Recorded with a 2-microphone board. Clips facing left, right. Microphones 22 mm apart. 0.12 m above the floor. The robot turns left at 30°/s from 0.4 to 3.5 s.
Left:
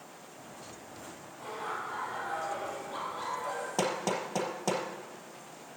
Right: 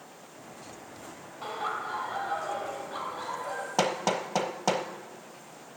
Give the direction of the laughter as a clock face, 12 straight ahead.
4 o'clock.